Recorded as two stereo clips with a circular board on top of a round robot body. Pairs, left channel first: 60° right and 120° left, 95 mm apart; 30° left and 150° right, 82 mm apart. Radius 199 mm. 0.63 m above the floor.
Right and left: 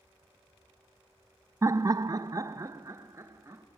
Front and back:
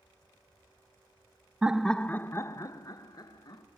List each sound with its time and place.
1.6 s laughter: 145° left, 0.5 m; by 3.6 s 60° left, 1.1 m